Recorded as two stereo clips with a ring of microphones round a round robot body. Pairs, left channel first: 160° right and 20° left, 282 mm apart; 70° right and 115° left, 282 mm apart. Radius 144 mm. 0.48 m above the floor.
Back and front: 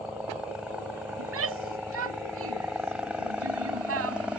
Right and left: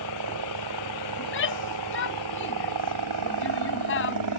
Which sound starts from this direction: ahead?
A shout, at 1.2 s.